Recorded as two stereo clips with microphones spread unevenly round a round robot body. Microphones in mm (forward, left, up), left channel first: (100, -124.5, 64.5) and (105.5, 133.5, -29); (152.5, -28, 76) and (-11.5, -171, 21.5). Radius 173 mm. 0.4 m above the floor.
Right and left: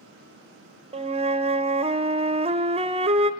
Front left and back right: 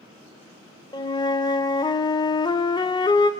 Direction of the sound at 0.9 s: 120° left.